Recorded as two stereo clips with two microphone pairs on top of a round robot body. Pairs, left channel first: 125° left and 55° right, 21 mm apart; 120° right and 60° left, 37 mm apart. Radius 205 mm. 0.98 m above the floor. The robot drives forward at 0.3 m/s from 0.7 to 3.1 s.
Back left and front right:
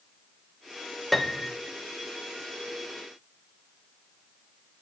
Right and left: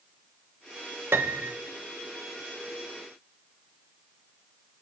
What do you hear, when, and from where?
1.1 s a piano: 45° left, 0.6 m; by 1.6 s 55° left, 0.5 m